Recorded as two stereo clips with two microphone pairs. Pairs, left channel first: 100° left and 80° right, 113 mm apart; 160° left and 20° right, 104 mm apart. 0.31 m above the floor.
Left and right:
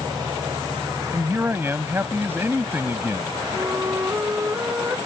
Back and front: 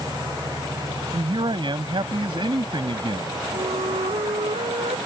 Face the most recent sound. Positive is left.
turn(degrees=-10)